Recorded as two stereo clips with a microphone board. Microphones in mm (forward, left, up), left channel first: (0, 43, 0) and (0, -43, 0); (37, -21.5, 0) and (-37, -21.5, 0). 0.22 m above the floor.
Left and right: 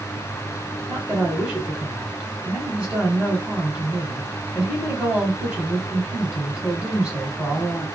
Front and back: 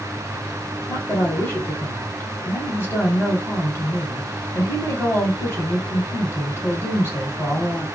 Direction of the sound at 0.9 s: 25° right.